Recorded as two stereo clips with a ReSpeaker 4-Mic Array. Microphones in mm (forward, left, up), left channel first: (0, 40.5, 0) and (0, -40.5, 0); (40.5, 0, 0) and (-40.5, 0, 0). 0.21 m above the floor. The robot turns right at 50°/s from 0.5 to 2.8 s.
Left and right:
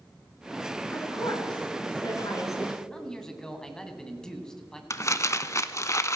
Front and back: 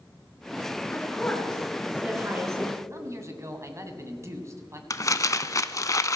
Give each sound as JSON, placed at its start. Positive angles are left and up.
{"t": 0.9, "sound": "a woman speaking", "azimuth_deg": 50, "distance_m": 2.5}
{"t": 2.9, "sound": "a man speaking", "azimuth_deg": 170, "distance_m": 1.5}
{"t": 4.9, "sound": "crumpling", "azimuth_deg": 40, "distance_m": 0.5}